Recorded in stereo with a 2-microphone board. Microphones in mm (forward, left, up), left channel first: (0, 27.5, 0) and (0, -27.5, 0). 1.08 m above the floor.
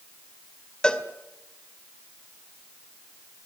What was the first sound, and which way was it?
A cowbell, 20° left (ahead or behind).